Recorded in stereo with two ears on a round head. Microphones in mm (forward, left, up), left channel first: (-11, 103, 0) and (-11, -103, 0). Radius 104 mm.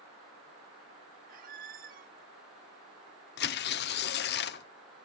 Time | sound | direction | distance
1.3 | a squeak | 40° right (ahead or behind) | 0.7 m
3.4 | tearing paper | 45° left (ahead or behind) | 0.6 m